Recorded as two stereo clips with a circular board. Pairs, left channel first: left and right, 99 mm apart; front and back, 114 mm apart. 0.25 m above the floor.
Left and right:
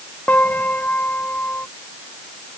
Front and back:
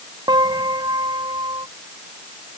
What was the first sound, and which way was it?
A piano, 155° left.